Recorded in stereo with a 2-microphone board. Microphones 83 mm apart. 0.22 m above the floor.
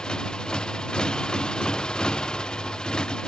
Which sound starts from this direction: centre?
A motorcycle, at 0.0 s.